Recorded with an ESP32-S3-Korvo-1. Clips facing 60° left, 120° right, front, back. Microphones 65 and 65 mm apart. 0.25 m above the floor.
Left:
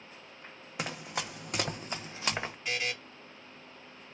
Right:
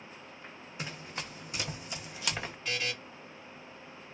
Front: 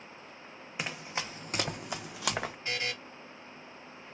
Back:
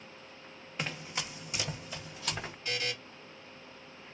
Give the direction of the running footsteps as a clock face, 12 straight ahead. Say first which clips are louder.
Left 5 dB, front 1 dB; 9 o'clock.